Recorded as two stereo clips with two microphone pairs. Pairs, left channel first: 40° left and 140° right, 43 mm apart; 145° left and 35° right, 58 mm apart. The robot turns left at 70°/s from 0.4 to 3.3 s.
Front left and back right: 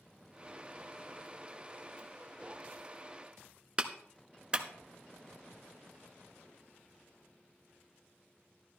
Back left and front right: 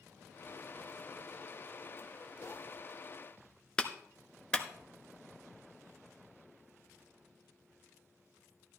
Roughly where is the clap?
Behind.